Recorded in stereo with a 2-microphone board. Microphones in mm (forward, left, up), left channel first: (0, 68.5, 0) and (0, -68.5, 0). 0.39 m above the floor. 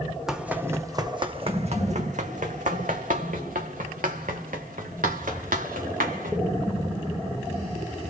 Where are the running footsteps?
5° right (ahead or behind), 1.0 m; by 6.4 s 80° right, 3.5 m.